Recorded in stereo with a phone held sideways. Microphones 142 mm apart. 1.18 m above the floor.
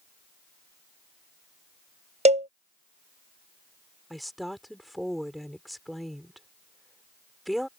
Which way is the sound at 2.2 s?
50° right (ahead or behind).